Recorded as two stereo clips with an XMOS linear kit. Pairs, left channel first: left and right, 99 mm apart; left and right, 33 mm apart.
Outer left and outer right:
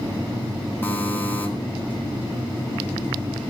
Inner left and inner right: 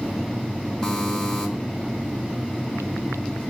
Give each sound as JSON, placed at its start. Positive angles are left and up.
{"t": 0.8, "sound": "a buzzer", "side_deg": 20, "distance_m": 2.0}